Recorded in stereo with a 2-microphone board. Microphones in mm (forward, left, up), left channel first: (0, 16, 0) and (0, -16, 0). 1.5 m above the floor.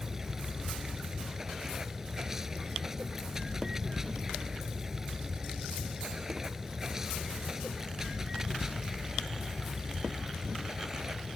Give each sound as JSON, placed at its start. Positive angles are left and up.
{"t": 0.0, "sound": "running water", "side_deg": -15}